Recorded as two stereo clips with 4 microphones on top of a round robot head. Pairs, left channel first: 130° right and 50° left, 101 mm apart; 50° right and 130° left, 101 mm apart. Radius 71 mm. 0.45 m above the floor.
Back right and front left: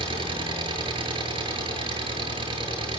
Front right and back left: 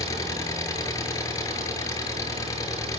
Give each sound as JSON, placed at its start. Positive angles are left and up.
{"t": 0.0, "sound": "an engine running", "azimuth_deg": 10, "distance_m": 8.5}